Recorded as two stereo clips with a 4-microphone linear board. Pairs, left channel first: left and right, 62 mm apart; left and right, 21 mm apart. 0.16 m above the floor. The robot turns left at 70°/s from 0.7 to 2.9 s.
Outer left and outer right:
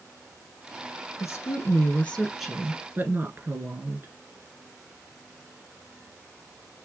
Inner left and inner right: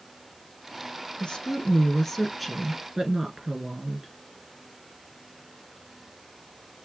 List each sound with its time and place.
1.2 s a woman speaking: 75° left, 2.0 m; by 4.1 s 40° right, 2.0 m